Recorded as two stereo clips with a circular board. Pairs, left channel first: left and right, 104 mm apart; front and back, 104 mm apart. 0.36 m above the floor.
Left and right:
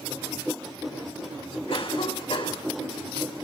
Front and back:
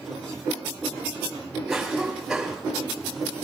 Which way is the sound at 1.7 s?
95° left.